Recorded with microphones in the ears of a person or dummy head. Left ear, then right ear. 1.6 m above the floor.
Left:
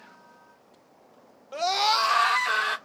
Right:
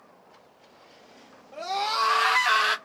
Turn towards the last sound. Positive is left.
turn(degrees=-30)  # may be behind; listen again after turning